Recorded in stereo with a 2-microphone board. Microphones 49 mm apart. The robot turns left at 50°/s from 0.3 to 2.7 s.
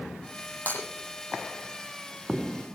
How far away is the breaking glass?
About 9 m.